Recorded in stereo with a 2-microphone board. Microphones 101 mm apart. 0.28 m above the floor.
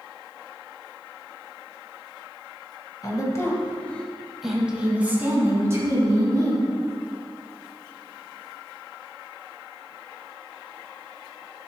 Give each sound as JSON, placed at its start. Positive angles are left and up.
{"t": 3.0, "sound": "a woman speaking", "side_deg": 35, "distance_m": 1.7}